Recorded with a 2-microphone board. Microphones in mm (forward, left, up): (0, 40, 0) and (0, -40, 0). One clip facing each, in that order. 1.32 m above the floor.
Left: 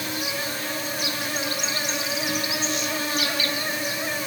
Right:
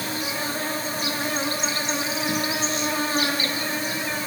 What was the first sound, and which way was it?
An insect, 35° right (ahead or behind).